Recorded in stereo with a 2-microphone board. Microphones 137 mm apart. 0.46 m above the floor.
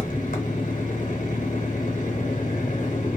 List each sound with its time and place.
0.0 s an engine running: 75° left (ahead or behind), 0.9 m